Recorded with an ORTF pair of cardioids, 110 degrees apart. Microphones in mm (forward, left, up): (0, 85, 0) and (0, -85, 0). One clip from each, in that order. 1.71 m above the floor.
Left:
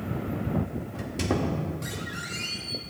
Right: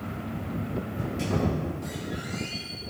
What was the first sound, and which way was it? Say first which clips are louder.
A squeak: left 2 dB; 65° left.